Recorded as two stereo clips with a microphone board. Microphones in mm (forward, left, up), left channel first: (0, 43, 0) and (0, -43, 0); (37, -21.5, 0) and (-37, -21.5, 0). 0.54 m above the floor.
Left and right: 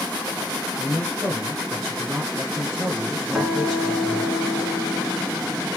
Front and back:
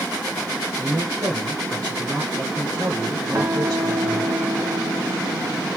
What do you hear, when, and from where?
0.8 s a man speaking: straight behind, 1.1 m
3.3 s a guitar: 170° right, 1.8 m